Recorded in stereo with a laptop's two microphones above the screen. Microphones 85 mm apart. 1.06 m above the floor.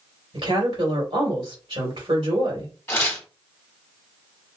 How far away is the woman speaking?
About 1.8 m.